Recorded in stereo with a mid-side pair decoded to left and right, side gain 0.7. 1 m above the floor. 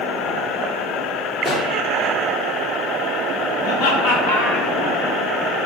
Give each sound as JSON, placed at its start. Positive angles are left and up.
{"t": 1.4, "sound": "a pop", "azimuth_deg": 25, "distance_m": 0.8}
{"t": 3.6, "sound": "laughter", "azimuth_deg": 70, "distance_m": 1.0}